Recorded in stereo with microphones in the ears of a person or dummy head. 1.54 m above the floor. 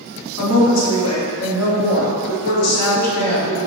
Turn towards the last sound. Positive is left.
turn(degrees=80)